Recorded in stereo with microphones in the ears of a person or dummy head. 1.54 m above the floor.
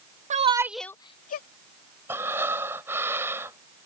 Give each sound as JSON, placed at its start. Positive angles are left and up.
{"t": 0.3, "sound": "a shout", "side_deg": -35}
{"t": 2.1, "sound": "breathing", "side_deg": -15}